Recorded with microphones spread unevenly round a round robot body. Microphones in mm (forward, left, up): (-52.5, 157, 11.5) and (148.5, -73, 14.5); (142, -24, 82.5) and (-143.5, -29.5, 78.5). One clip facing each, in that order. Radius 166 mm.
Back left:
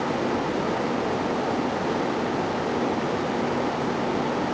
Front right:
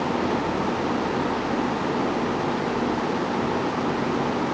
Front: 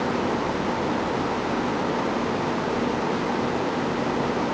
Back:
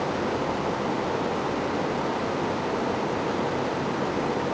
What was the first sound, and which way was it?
Only background noise.